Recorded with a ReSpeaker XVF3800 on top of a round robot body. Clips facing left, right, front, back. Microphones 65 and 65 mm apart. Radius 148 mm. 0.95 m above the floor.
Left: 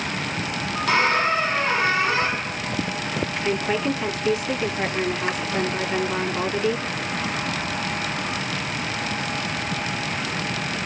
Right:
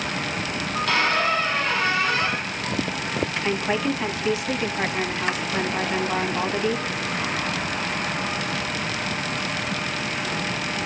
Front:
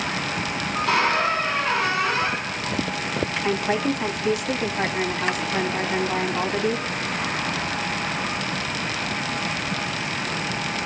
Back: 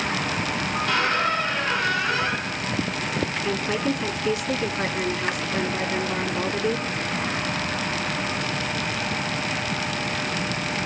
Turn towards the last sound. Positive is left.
turn(degrees=-20)